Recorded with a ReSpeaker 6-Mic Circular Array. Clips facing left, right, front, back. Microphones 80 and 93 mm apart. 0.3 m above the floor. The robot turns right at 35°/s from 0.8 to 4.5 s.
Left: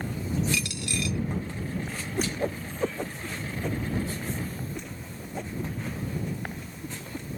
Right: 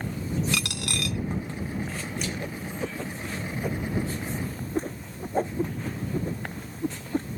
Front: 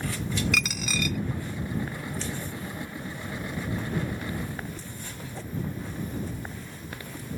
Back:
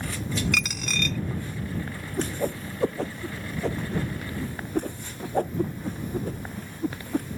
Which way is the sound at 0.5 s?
90° right.